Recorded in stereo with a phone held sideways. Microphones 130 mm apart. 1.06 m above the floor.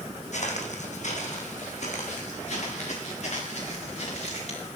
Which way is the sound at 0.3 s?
60° left (ahead or behind).